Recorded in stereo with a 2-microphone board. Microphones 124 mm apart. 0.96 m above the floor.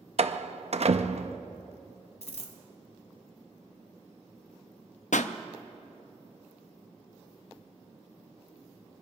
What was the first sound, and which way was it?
A door slam, 60° right (ahead or behind).